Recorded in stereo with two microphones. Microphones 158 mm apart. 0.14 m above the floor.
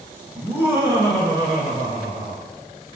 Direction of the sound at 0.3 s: 10° right (ahead or behind).